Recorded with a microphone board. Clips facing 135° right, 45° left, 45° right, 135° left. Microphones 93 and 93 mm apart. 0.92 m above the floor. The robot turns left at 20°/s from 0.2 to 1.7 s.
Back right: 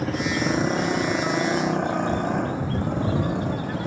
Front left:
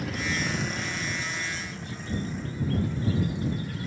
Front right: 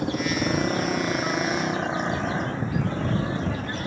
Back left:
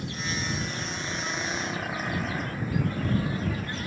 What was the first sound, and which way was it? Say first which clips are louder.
A motorcycle: back right 7 dB, front right 9 dB; 80° right.